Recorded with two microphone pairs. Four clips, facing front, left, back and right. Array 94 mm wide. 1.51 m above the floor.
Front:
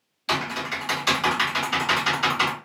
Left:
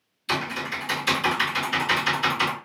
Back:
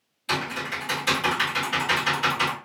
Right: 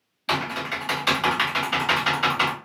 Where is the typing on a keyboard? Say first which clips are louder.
Right 2 dB, front 2 dB; 65° right, 1.4 m.